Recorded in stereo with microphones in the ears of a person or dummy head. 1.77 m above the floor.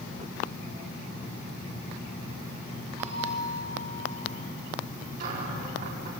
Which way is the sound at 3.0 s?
20° right (ahead or behind).